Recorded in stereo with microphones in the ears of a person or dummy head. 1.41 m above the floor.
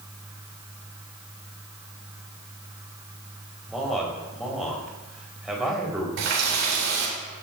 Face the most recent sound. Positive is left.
turn(degrees=-75)  # may be behind; listen again after turning